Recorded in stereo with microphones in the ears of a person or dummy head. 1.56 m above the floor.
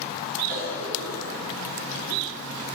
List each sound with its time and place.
0.5 s a cough: 80° right, 2.5 m